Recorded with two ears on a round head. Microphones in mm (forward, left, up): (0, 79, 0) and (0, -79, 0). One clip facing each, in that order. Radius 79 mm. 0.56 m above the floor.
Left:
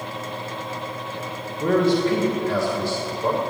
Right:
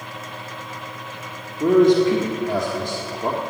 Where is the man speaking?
15° right (ahead or behind), 1.5 m.